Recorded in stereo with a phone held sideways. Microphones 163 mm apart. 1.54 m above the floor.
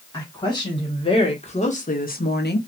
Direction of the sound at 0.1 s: 25° left (ahead or behind).